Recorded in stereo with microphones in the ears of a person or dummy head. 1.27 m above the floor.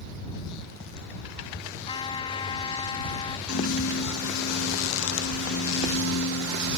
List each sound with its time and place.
1.9 s a trumpet: 30° left (ahead or behind)
3.5 s a piano: 90° left